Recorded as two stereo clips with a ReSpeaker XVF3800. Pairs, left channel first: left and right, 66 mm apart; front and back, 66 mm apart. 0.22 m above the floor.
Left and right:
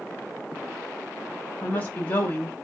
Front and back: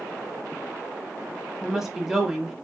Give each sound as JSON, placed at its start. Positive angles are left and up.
{"t": 1.6, "sound": "a woman speaking", "azimuth_deg": 105, "distance_m": 1.0}